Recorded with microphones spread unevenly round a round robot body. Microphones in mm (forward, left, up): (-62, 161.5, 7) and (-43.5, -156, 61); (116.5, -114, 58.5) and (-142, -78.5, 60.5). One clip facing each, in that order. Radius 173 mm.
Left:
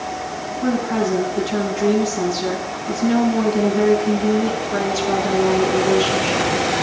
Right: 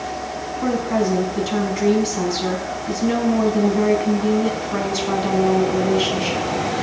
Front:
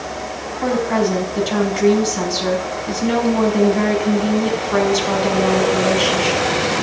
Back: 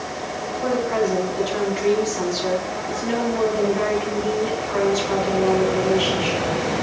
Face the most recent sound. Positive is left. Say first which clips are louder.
# left 1 dB, front 3 dB
turn(degrees=-35)